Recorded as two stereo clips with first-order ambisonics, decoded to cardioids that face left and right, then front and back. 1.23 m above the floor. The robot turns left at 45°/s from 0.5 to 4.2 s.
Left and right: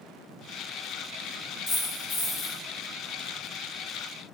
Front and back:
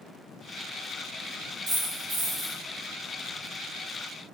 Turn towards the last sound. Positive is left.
turn(degrees=15)